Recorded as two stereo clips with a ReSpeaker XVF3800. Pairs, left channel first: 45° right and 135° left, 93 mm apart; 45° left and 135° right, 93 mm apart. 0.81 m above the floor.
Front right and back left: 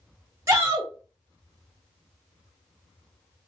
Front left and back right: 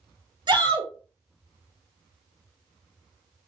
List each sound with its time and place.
0.5 s a shout: 170° right, 1.6 m